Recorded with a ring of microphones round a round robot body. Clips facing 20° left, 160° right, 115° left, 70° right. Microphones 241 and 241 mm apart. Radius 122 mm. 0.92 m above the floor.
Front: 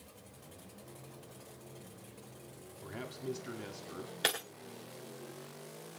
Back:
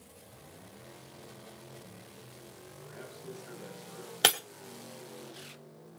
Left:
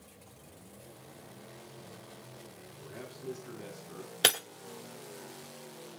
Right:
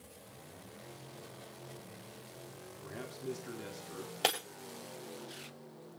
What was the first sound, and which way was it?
A man speaking, straight ahead.